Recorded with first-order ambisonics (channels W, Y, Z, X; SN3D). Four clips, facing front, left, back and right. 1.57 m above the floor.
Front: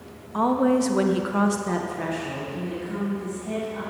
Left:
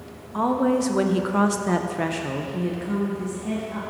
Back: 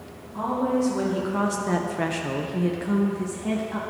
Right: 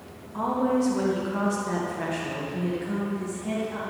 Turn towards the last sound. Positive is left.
turn(degrees=175)